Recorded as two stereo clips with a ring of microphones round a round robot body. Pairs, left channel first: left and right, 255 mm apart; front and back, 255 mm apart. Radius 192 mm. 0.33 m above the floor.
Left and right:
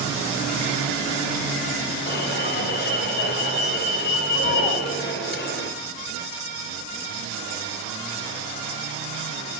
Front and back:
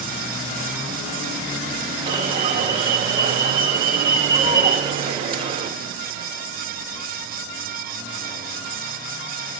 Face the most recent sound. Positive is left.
turn(degrees=120)